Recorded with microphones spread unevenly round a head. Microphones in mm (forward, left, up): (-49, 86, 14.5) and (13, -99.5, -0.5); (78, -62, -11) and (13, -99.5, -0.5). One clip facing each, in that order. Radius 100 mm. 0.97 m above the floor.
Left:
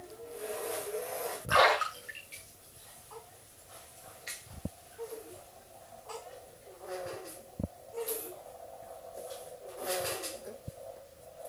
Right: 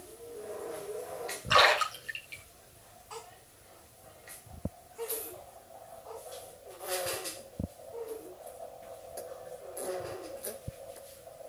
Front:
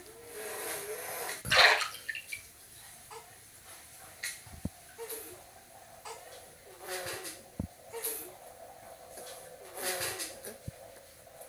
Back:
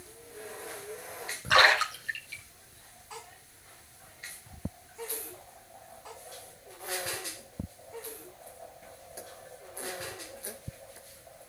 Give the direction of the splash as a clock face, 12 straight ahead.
4 o'clock.